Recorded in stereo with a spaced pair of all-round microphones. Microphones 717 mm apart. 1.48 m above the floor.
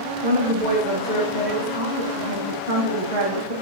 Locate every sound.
0.2 s a woman speaking: 80° right, 2 m